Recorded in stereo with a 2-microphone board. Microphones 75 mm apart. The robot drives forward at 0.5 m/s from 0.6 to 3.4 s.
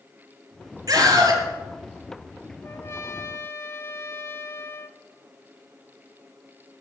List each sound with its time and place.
0.9 s a scream: 50° right (ahead or behind), 5 m
2.6 s a trumpet: 35° left (ahead or behind), 0.7 m